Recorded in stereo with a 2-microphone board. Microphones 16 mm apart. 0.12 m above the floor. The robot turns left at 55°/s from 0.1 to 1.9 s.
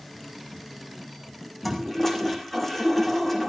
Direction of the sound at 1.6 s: 5° left (ahead or behind).